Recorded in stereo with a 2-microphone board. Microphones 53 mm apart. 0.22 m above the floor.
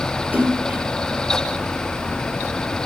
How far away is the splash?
About 5 m.